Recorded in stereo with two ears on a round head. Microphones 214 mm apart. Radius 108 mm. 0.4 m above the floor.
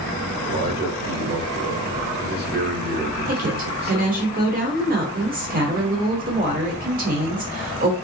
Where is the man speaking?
40° right (ahead or behind), 1.2 m.